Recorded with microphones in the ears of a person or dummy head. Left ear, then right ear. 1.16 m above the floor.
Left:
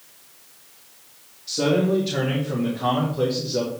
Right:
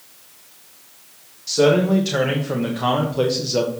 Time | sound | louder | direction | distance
1.5 | a man speaking | right 5 dB | 40° right (ahead or behind) | 1.8 m